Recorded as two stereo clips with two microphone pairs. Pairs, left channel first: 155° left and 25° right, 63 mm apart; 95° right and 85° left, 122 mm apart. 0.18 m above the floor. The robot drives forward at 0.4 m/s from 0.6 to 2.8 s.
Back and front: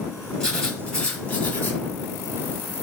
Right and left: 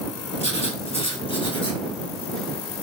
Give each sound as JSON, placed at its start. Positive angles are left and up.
{"t": 0.4, "sound": "writing", "azimuth_deg": -125, "distance_m": 0.9}